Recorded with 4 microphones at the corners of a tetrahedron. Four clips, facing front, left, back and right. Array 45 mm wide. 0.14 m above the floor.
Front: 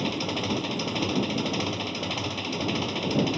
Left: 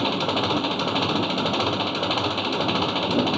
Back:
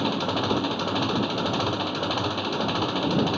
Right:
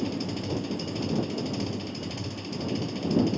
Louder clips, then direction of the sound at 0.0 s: Left 8 dB, back 3 dB; 105° left.